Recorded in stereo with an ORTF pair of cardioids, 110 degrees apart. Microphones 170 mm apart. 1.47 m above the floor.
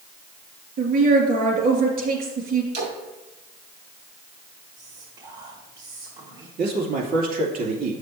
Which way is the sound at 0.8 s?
60° right.